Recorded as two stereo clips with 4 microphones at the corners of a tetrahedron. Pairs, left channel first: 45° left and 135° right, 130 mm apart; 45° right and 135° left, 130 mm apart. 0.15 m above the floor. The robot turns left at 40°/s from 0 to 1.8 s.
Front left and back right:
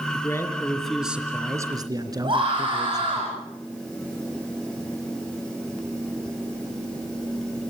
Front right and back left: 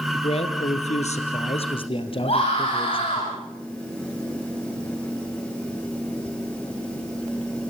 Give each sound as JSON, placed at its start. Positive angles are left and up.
{"t": 0.1, "sound": "a man speaking", "azimuth_deg": -15, "distance_m": 2.5}
{"t": 2.2, "sound": "a scream", "azimuth_deg": -85, "distance_m": 9.5}